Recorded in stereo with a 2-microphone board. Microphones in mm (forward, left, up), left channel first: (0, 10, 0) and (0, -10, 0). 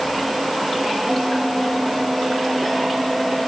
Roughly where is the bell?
Centre.